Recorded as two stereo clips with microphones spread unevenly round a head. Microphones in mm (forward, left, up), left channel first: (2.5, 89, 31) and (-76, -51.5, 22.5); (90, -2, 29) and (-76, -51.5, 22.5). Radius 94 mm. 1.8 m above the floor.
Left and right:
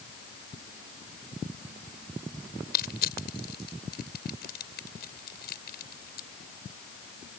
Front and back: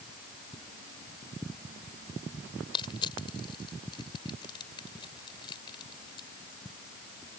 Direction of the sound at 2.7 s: 85° left.